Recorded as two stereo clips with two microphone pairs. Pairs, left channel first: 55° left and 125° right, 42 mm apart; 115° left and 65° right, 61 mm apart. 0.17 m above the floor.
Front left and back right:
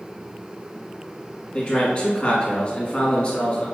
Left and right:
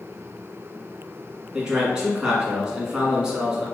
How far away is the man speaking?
About 1.5 m.